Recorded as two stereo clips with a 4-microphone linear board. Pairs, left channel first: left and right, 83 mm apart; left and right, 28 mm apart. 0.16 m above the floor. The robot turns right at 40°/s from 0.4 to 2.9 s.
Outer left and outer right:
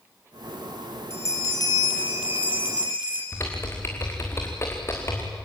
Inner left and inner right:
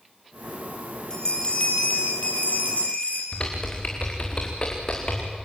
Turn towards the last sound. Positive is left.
turn(degrees=30)  # may be behind; listen again after turning